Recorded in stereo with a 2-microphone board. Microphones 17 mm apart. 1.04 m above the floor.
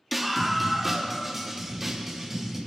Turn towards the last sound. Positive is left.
turn(degrees=-15)  # may be behind; listen again after turning